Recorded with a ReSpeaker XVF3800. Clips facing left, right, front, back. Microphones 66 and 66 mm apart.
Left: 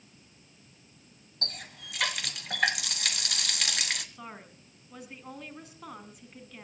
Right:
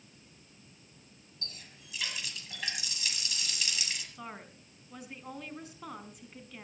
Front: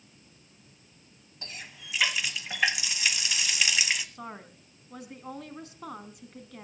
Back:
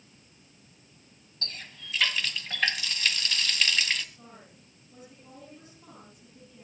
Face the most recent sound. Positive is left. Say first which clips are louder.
# even, front 9 dB
turn(degrees=0)